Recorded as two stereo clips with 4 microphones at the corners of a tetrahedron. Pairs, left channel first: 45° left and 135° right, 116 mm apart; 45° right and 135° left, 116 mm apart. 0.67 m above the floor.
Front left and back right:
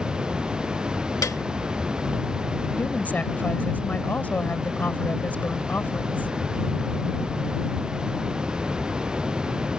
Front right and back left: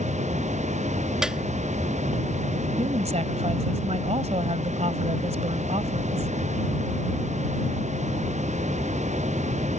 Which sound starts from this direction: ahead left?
A piano, at 1.2 s.